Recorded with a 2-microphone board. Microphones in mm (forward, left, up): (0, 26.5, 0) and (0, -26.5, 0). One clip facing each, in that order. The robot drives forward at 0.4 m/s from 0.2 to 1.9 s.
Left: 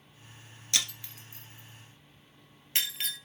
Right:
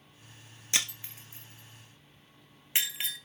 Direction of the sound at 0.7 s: 25° right (ahead or behind).